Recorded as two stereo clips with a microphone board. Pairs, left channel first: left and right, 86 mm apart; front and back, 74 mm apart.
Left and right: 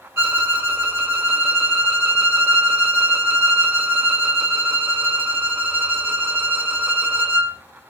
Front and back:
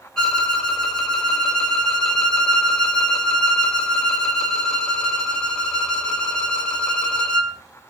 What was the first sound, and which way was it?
A violin, 70° right.